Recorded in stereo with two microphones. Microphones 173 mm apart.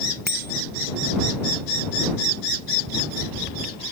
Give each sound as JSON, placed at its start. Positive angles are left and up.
{"t": 0.3, "sound": "a bicycle bell", "side_deg": -65}